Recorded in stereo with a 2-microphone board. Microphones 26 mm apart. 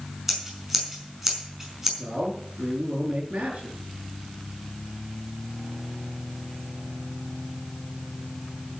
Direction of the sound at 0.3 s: 10° right (ahead or behind).